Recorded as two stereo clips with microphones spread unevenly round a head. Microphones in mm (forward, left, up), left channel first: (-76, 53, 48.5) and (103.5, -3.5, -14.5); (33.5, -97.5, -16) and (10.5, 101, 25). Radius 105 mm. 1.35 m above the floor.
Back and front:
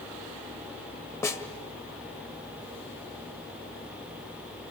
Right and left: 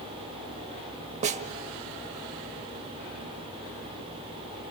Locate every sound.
1.2 s a snare drum: 115° left, 1.4 m